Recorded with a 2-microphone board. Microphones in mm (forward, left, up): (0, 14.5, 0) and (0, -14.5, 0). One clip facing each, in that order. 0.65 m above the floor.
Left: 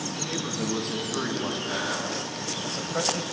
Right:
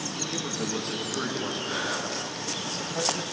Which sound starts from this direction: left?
A man speaking, at 0.2 s.